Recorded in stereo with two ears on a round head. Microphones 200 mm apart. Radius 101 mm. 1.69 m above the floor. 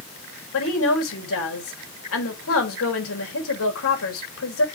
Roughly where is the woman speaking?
Left.